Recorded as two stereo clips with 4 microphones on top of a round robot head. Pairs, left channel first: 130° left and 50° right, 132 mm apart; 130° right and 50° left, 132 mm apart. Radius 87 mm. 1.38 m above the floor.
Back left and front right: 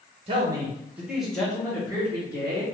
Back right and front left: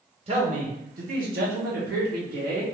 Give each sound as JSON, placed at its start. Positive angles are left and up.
{"t": 0.3, "sound": "a man speaking", "azimuth_deg": 0, "distance_m": 0.8}